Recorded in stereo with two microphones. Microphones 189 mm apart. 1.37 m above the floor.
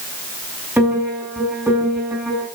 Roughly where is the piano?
Centre.